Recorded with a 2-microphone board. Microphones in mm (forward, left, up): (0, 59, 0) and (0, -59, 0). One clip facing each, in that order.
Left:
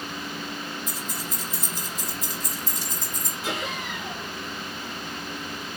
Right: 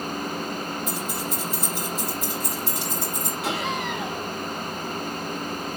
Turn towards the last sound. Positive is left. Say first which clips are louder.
# right 3 dB
turn(degrees=-70)  # may be behind; listen again after turning